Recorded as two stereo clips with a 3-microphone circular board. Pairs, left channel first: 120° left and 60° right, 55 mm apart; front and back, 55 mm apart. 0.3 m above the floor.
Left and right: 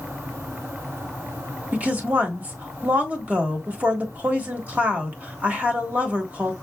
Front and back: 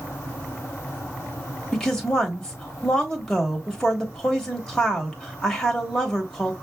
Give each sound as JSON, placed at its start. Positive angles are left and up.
{"t": 1.7, "sound": "a woman speaking", "azimuth_deg": -60, "distance_m": 1.3}